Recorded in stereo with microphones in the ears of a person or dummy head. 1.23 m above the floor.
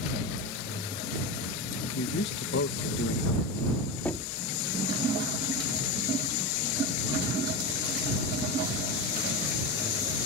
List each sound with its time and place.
1.9 s a man speaking: 60° left (ahead or behind)
4.0 s knocking: 10° left (ahead or behind)